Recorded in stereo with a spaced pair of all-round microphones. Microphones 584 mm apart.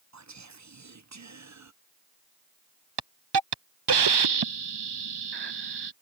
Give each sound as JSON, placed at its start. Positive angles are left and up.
{"t": 0.1, "sound": "whispering", "side_deg": -30}
{"t": 3.0, "sound": "a hiss", "side_deg": -45}